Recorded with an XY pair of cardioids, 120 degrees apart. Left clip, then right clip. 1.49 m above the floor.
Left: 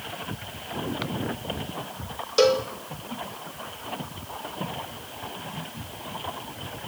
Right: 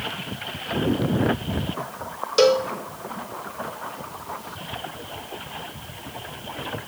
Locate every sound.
2.4 s a cowbell: 10° right, 1.3 m